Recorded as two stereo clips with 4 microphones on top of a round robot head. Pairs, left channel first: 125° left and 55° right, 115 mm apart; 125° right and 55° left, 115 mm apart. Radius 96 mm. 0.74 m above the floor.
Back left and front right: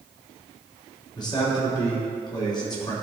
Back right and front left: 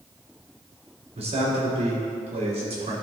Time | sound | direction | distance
1.1 | a man speaking | 80° left | 3 m